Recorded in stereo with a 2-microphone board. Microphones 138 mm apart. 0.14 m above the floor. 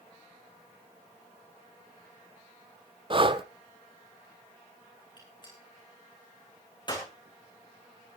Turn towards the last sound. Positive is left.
turn(degrees=35)  # may be behind; listen again after turning